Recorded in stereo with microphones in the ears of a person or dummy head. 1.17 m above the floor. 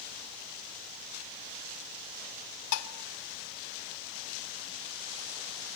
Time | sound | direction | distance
2.7 | dishes clattering | 85° left | 1.3 m